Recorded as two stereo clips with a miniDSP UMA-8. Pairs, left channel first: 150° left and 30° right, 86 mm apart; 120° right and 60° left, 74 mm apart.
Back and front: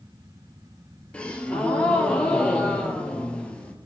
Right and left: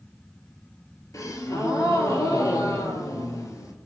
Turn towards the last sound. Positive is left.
turn(degrees=-140)